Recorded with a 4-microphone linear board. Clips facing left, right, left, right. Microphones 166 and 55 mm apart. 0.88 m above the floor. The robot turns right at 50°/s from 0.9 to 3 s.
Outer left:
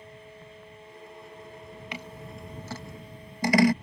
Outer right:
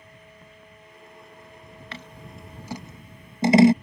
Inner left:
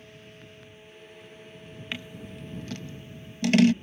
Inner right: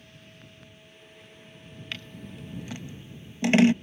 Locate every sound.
1.9 s scissors: 15° left (ahead or behind); by 3.7 s 25° right (ahead or behind)